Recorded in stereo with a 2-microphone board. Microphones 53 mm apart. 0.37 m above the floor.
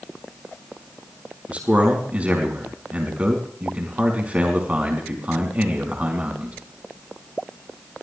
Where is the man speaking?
25° right (ahead or behind), 4.5 m.